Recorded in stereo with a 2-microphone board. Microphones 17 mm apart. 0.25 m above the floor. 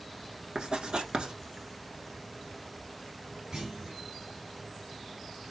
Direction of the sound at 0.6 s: 65° right (ahead or behind).